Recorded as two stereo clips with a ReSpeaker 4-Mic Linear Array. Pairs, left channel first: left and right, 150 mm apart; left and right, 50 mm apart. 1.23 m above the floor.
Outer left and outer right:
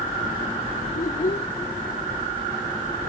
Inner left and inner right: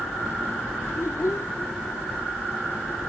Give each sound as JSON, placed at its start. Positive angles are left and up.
{"t": 0.9, "sound": "a child speaking", "side_deg": 85}